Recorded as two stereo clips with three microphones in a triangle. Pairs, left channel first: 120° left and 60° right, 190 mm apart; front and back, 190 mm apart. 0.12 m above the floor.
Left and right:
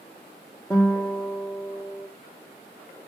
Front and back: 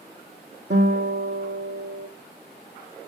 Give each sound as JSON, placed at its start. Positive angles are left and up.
{"t": 0.7, "sound": "a guitar", "azimuth_deg": -165, "distance_m": 1.6}